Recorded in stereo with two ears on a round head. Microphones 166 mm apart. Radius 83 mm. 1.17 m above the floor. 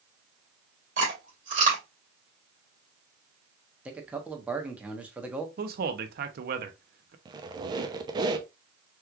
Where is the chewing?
45° right (ahead or behind), 2.0 m.